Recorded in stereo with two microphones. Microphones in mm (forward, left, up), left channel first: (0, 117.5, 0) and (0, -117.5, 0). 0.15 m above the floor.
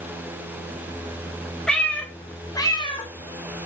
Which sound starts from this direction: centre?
A cat meowing, at 1.7 s.